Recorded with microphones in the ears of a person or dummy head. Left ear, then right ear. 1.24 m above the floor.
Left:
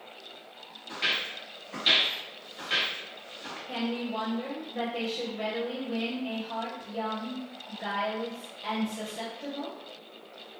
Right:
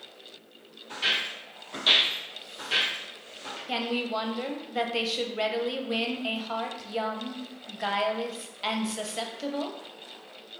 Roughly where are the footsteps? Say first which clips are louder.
Right 2 dB; centre.